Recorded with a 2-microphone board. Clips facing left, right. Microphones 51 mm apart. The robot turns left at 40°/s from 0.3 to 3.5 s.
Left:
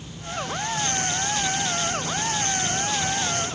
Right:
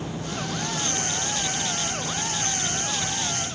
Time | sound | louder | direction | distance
0.0 | an insect | right 1 dB | 100° right | ?